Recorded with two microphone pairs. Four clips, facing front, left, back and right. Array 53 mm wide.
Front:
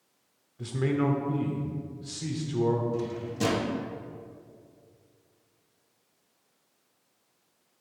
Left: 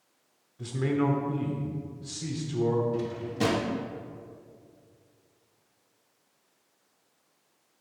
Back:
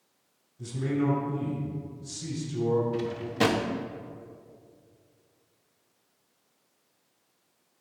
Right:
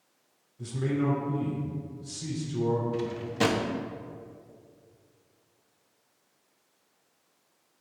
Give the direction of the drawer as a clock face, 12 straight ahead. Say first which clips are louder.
Right 1 dB, back 3 dB; 5 o'clock.